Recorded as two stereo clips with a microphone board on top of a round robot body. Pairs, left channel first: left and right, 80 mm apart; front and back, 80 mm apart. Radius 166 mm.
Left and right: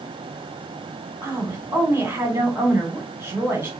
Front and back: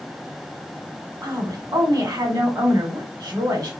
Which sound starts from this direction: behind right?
A woman speaking, at 1.2 s.